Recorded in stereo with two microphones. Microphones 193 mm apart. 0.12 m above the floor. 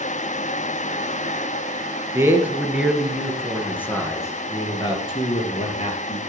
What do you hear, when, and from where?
2.1 s a man speaking: 15° right (ahead or behind), 2.5 m; by 6.2 s 35° left (ahead or behind), 3.5 m